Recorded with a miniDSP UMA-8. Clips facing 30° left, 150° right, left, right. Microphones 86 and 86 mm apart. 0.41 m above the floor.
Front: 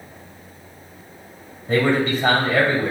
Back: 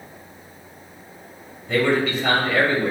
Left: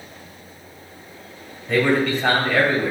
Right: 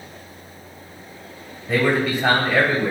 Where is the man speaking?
10° right, 1.8 m.